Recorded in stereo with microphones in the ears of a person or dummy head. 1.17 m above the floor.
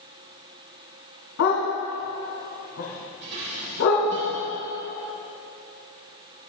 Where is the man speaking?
No man speaking in this recording.